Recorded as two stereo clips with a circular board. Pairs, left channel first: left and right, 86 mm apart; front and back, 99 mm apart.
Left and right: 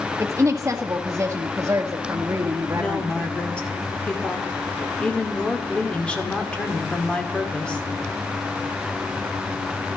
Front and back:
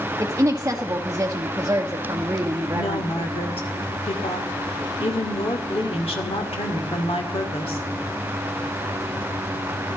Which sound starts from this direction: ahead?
A woman speaking, at 2.8 s.